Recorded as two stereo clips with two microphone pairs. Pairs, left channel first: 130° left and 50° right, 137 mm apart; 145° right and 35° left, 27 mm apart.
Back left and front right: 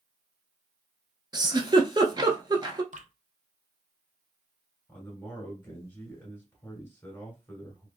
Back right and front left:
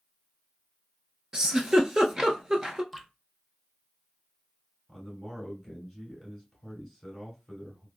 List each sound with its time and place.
1.3 s a giggle: 15° right, 0.6 m
2.9 s dripping: 50° right, 0.6 m
4.9 s a man speaking: 95° left, 1.6 m